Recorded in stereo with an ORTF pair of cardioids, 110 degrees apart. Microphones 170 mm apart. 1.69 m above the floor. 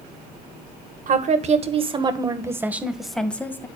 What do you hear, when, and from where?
1.1 s a woman speaking: 50° right, 1.7 m; by 3.7 s 15° left, 1.6 m